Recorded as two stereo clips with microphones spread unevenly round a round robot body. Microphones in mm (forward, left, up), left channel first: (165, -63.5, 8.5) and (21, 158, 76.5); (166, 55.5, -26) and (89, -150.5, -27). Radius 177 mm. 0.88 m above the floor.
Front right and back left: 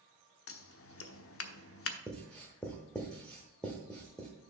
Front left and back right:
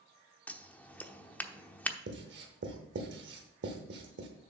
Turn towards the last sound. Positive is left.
turn(degrees=-150)